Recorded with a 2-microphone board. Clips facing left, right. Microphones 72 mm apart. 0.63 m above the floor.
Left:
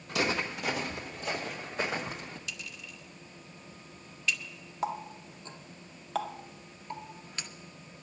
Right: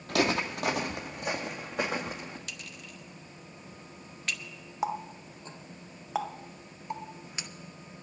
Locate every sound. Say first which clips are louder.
0.1 s footsteps: right 3 dB; 65° right (ahead or behind), 1.3 m; by 2.4 s 55° right (ahead or behind), 3 m
2.5 s a clink: even; 50° right (ahead or behind), 0.7 m
4.8 s a running tap: right 2 dB; 15° right (ahead or behind), 0.6 m